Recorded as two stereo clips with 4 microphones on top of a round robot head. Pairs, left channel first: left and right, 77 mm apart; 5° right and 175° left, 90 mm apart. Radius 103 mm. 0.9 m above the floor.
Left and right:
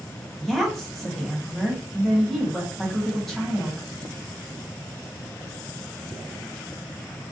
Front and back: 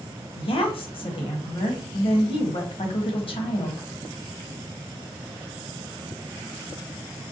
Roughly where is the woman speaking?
Ahead.